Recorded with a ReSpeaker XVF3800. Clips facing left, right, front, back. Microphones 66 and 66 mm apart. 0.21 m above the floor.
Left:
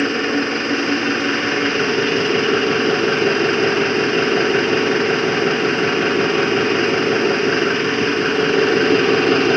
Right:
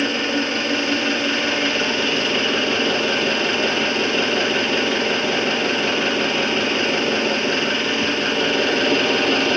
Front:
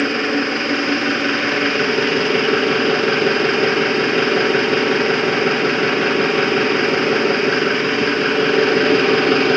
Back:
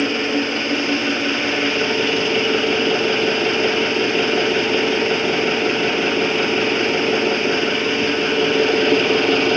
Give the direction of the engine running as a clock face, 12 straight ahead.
11 o'clock.